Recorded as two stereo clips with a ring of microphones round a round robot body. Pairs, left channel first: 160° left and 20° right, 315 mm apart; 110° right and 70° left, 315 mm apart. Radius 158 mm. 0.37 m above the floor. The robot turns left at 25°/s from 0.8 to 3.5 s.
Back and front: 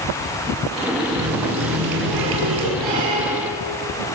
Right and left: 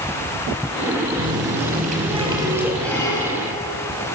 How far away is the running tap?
About 5 m.